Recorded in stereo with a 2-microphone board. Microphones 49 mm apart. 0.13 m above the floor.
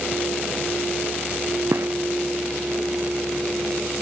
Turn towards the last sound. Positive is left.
turn(degrees=-70)  # may be behind; listen again after turning